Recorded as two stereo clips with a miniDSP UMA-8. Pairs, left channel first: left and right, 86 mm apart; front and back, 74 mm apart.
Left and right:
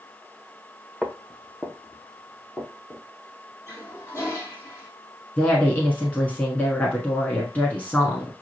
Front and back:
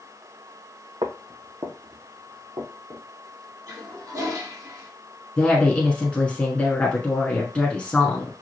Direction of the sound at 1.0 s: 175° right.